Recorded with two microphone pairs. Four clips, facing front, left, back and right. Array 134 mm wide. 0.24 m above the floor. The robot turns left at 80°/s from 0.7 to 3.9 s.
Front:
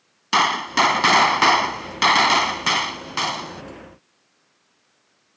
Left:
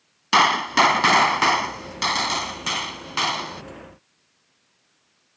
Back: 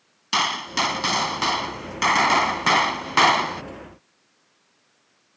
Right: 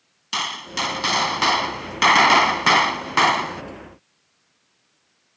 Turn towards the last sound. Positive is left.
turn(degrees=165)